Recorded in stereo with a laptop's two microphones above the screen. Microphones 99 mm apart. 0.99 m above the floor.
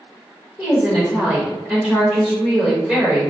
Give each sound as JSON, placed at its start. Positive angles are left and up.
{"t": 0.6, "sound": "a woman speaking", "side_deg": -15, "distance_m": 1.2}